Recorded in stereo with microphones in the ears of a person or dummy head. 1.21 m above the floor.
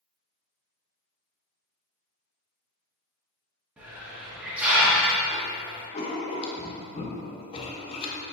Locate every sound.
3.8 s a hiss: 5° right (ahead or behind), 1.1 m
5.9 s writing: 30° left (ahead or behind), 0.6 m